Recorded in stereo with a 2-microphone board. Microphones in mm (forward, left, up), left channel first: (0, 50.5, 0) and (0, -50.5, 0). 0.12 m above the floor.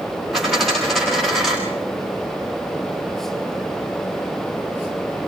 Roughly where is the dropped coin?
Centre.